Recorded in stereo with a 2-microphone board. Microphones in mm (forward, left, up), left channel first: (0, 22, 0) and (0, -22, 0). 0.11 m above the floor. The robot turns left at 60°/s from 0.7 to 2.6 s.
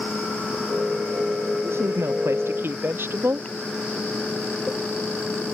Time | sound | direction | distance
1.6 | a woman speaking | 65° right | ?